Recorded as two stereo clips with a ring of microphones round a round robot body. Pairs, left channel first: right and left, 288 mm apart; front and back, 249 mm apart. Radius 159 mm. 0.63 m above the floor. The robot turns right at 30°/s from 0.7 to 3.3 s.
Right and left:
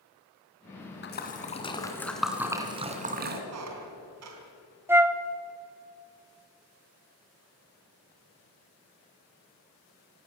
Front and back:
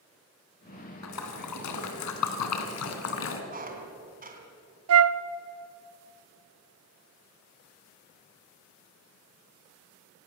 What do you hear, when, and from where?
1.0 s a splash: 35° right, 2.5 m; by 3.4 s 30° left, 2.5 m
3.5 s a squeak: 125° left, 3.5 m
4.9 s a flute: 170° left, 0.7 m